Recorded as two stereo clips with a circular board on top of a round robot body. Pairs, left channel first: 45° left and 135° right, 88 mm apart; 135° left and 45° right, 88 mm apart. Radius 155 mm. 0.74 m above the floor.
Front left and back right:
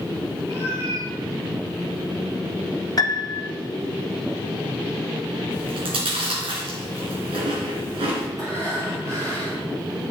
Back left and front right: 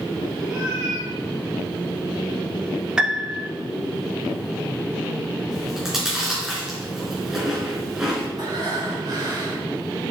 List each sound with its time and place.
0.5 s a cat meowing: 115° right, 6.5 m
3.0 s a piano: 30° left, 1.5 m
5.5 s chewing: 130° right, 3 m
8.4 s breathing: 90° right, 4 m